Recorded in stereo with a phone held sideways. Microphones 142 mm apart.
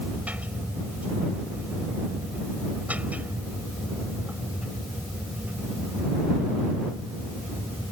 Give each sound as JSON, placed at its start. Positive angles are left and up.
{"t": 0.0, "sound": "a machine running", "side_deg": -10}